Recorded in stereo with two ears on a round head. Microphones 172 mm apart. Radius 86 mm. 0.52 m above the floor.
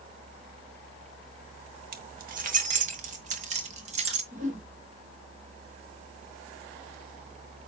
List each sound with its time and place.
1.9 s keys jangling: 50° right (ahead or behind), 1.5 m; by 4.2 s 35° right (ahead or behind), 2.5 m
4.3 s a whoosh: 40° right (ahead or behind), 2.5 m